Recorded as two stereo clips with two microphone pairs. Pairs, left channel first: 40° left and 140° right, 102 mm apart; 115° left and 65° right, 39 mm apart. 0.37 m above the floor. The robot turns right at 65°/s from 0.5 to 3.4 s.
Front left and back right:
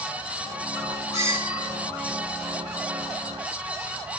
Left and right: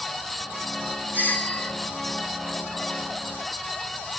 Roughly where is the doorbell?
Right.